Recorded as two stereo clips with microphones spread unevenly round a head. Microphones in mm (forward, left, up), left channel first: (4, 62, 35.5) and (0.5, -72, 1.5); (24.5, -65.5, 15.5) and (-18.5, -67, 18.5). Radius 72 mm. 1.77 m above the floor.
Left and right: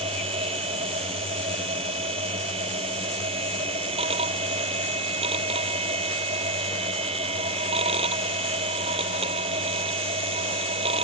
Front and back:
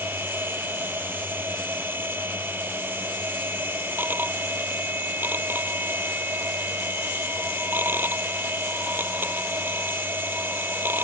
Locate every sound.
0.0 s a machine running: 140° right